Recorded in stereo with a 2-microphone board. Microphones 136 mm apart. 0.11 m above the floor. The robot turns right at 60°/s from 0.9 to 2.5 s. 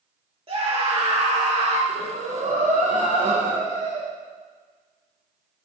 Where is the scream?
125° right, 2.5 m; by 1.8 s 70° right, 2.5 m.